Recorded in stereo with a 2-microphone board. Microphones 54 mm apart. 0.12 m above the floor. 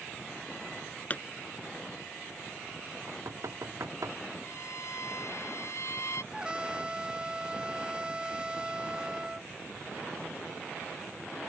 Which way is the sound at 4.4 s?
60° left (ahead or behind).